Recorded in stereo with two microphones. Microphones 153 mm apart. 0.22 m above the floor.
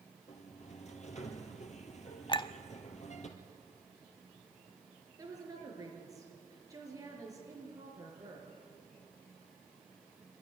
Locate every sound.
0.3 s a sliding door: 50° left (ahead or behind), 2 m
2.3 s a clink: 30° left (ahead or behind), 0.6 m
5.2 s a woman speaking: 20° right (ahead or behind), 4.5 m